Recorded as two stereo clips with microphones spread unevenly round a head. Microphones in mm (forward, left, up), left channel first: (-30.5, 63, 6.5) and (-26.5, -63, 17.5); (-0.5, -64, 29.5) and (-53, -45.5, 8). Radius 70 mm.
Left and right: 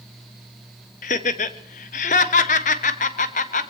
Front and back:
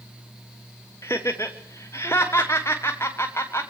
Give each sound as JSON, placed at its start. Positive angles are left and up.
{"t": 1.0, "sound": "laughter", "azimuth_deg": 50, "distance_m": 0.9}